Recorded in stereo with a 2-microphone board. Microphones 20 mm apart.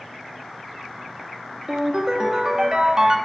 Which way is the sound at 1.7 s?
40° right (ahead or behind).